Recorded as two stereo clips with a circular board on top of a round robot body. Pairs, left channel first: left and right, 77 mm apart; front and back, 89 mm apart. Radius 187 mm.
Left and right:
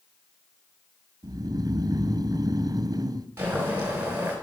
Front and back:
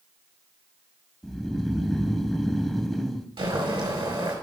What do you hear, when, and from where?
1.2 s snoring: 90° right, 1.1 m
3.4 s boiling: 155° right, 5 m